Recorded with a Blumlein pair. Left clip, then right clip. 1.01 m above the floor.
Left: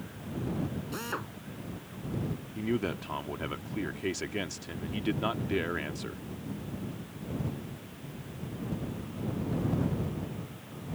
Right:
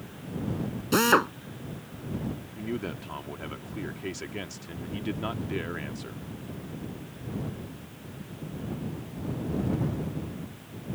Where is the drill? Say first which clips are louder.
Right 18 dB; 35° right.